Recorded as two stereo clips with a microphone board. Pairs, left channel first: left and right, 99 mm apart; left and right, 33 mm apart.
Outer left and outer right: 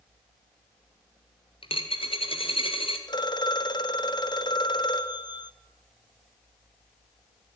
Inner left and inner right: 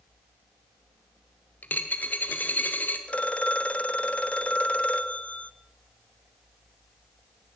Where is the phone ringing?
50° left (ahead or behind), 1.3 m.